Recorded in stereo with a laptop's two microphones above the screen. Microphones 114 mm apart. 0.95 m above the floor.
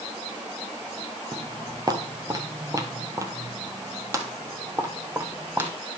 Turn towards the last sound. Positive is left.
turn(degrees=-20)  # may be behind; listen again after turning